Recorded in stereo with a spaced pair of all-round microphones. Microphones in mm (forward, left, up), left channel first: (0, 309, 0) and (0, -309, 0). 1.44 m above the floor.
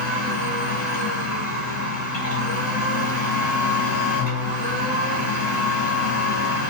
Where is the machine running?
30° left (ahead or behind), 1.7 m.